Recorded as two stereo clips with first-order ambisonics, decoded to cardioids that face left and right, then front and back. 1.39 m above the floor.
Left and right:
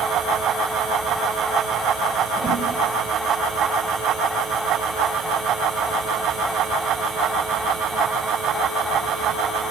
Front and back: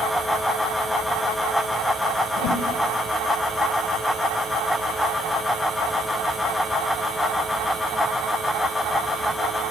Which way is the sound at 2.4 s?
25° right.